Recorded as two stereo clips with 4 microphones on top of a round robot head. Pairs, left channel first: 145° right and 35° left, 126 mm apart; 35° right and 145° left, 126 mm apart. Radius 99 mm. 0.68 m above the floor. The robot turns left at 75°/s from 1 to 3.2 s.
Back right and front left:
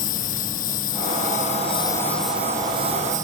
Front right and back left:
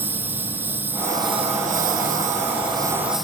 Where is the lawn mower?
140° right; by 3.2 s 55° left.